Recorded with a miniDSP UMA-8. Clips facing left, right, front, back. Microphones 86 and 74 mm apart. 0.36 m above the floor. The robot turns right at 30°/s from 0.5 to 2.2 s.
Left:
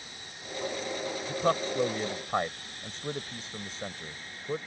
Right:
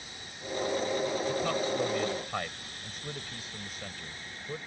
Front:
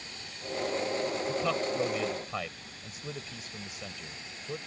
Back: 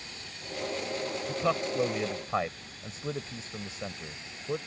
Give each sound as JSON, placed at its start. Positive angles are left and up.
{"t": 1.3, "sound": "a man speaking", "azimuth_deg": 110}